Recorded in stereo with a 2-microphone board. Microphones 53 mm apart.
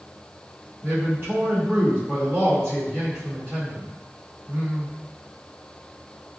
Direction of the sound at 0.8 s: 35° right (ahead or behind).